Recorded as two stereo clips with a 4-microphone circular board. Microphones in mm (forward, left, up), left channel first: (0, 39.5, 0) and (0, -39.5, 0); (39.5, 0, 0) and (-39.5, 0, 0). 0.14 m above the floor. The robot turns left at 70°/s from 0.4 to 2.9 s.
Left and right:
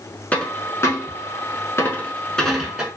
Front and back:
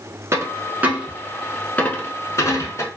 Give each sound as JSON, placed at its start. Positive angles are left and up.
{"t": 0.3, "sound": "a dropped coin", "azimuth_deg": 155, "distance_m": 0.8}